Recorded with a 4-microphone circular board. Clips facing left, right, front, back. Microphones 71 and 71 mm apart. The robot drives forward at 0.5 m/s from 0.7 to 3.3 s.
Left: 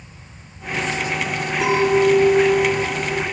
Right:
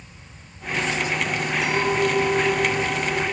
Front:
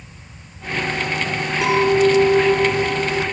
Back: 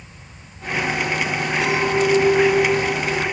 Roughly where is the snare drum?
I don't hear a snare drum.